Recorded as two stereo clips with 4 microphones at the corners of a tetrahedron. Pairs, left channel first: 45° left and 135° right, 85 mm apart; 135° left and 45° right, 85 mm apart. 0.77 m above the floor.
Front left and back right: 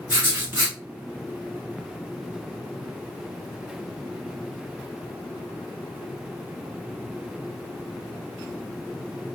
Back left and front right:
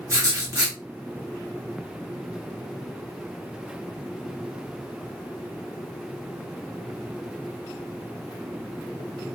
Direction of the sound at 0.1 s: 80° right.